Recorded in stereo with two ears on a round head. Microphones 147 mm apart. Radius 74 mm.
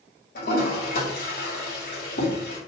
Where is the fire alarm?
I don't hear a fire alarm.